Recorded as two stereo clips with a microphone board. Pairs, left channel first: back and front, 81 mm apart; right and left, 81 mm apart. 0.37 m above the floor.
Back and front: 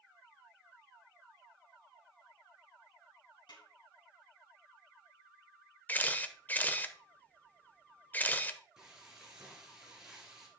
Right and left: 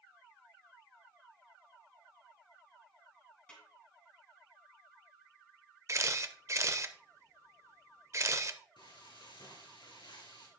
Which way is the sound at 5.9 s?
120° left.